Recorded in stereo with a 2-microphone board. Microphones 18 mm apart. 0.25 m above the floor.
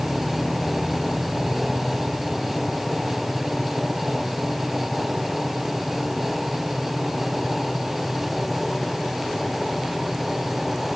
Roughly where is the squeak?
No squeak in this recording.